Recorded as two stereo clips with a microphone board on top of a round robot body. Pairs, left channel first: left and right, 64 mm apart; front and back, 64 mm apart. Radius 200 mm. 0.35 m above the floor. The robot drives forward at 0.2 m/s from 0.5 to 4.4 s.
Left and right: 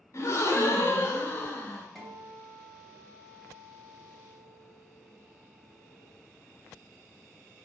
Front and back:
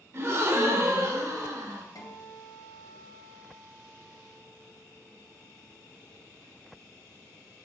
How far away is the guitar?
About 1.1 m.